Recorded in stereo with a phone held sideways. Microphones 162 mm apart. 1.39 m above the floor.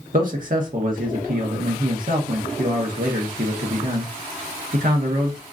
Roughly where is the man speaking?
Right.